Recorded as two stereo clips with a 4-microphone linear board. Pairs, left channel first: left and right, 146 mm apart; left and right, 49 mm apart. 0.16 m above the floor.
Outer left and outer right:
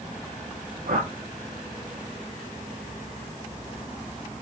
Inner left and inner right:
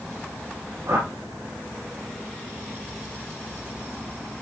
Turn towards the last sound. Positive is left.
turn(degrees=-75)  # may be behind; listen again after turning